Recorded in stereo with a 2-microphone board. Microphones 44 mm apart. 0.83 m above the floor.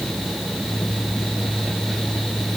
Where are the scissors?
I don't hear scissors.